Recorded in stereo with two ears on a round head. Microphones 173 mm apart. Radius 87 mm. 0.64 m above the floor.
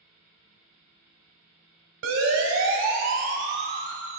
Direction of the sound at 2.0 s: 80° right.